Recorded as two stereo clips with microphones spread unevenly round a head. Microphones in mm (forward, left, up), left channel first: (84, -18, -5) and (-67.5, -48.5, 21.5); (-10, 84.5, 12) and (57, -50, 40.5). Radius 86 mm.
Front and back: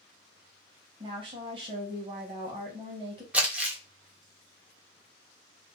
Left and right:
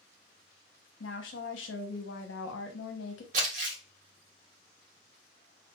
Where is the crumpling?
95° right, 0.8 m.